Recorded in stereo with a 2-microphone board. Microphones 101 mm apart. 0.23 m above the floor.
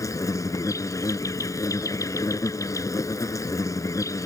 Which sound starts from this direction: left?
An insect, at 0.0 s.